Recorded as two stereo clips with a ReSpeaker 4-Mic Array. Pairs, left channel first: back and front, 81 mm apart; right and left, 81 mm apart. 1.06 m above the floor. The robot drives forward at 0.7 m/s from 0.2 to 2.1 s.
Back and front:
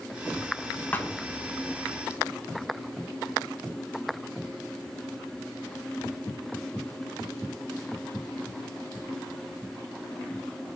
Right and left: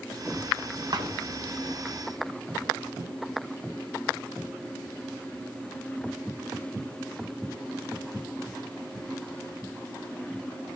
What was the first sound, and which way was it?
A thud, 115° left.